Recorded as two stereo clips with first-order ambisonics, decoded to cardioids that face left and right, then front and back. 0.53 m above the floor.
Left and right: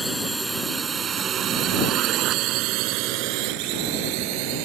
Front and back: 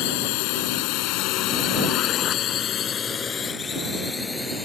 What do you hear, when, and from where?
0.0 s a drone: 5° right; by 4.7 s 80° right